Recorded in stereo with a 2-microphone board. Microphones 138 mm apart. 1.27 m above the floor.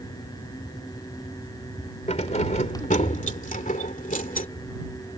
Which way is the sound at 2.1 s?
55° left (ahead or behind).